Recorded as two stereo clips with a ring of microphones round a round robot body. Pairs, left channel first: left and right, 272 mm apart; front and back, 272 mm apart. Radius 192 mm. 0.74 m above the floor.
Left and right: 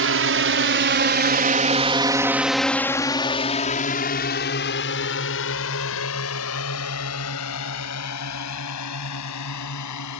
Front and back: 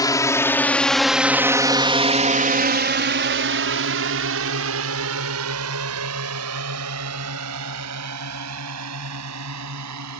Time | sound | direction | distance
0.0 | a drone | 75° right | ?